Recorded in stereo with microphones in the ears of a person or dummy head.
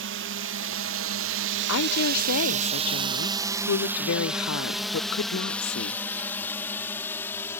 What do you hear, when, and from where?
0.0 s a drone: 55° right (ahead or behind); by 7.6 s 15° left (ahead or behind)
1.7 s a woman speaking: 75° left (ahead or behind)